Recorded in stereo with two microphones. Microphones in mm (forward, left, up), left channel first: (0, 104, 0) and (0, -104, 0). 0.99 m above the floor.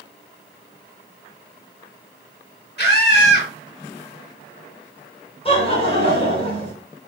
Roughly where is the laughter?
Left.